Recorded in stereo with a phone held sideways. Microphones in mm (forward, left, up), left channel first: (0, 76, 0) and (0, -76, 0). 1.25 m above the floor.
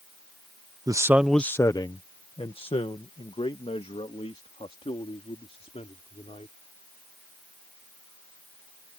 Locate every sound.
0.9 s a man speaking: 25° right (ahead or behind); by 6.5 s 45° left (ahead or behind)